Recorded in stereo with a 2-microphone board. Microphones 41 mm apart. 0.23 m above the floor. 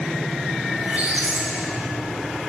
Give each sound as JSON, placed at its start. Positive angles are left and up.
{"t": 0.8, "sound": "a squeak", "side_deg": -40, "distance_m": 1.1}